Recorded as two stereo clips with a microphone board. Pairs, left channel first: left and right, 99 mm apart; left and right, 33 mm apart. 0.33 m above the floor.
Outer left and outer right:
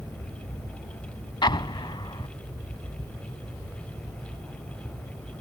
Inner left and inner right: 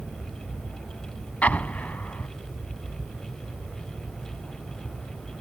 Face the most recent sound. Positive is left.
turn(degrees=55)  # may be behind; listen again after turning